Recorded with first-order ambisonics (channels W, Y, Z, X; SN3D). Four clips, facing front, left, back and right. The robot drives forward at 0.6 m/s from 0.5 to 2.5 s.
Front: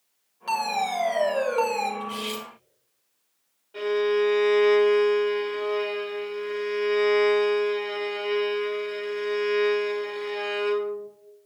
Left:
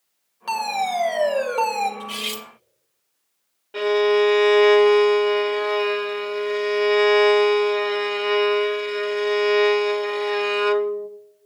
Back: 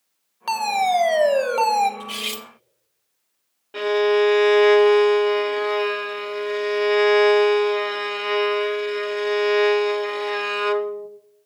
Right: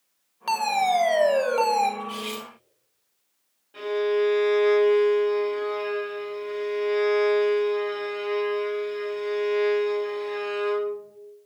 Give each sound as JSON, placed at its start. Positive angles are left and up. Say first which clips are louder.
{"t": 0.5, "sound": "a fire alarm", "louder": "right 1 dB, back 6 dB", "azimuth_deg": -165, "distance_m": 1.2}
{"t": 2.0, "sound": "cutlery clinking", "louder": "left 3 dB, back 2 dB", "azimuth_deg": 150, "distance_m": 1.0}
{"t": 3.7, "sound": "a violin", "louder": "left 6 dB, back 5 dB", "azimuth_deg": 145, "distance_m": 0.9}